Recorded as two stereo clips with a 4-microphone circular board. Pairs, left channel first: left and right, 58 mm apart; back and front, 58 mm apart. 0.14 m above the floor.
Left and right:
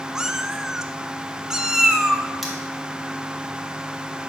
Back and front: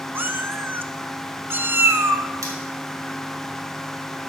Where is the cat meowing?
15° right, 0.6 m.